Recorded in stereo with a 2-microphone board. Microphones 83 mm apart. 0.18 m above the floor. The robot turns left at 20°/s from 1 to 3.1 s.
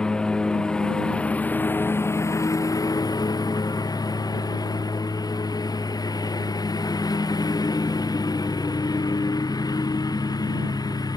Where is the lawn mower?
170° left; by 11.2 s 130° left.